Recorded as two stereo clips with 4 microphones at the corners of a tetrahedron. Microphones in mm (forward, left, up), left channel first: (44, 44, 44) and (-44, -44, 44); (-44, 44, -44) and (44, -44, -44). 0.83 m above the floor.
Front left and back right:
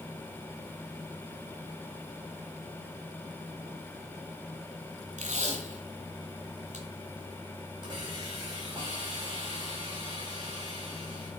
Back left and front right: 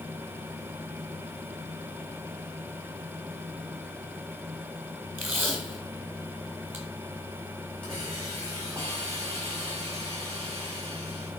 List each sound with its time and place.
5.2 s tape being pulled: 120° right, 2.0 m
7.8 s a hiss: 85° right, 4 m